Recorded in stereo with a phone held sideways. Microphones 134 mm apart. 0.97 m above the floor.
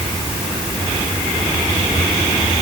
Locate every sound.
Only background noise.